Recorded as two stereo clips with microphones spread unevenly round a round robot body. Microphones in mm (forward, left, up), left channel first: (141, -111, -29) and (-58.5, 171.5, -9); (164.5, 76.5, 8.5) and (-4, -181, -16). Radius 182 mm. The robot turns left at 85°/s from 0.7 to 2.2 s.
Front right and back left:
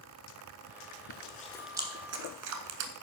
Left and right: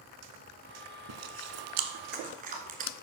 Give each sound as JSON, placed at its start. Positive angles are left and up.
{"t": 1.1, "sound": "chewing", "azimuth_deg": -100, "distance_m": 1.0}